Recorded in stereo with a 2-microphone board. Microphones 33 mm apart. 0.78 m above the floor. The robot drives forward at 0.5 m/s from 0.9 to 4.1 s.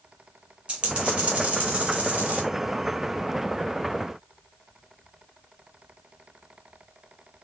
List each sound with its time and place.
0.7 s a dropped coin: 30° right (ahead or behind), 2 m; by 2.4 s 45° right (ahead or behind), 1.5 m